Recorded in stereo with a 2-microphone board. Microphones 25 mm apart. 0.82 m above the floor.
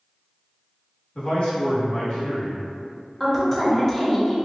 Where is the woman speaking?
15° left (ahead or behind), 0.7 m.